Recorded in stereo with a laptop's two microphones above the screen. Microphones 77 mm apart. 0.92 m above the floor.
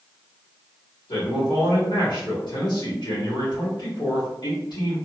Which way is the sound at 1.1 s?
70° left (ahead or behind).